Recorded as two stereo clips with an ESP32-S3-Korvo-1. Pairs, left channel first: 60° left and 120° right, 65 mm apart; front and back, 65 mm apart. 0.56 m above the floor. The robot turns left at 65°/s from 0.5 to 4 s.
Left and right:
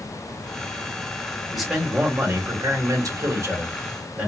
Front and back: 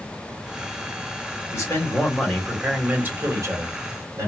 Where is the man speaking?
30° right, 1.5 m; by 4.3 s 170° left, 1.5 m.